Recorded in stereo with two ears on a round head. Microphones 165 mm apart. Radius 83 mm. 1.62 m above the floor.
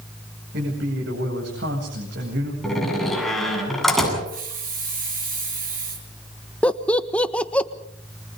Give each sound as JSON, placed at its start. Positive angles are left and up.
{"t": 0.5, "sound": "a man speaking", "side_deg": -60, "distance_m": 9.0}
{"t": 2.6, "sound": "a door slam", "side_deg": 0, "distance_m": 8.5}
{"t": 4.2, "sound": "a hiss", "side_deg": -45, "distance_m": 8.0}
{"t": 6.6, "sound": "laughter", "side_deg": 5, "distance_m": 1.4}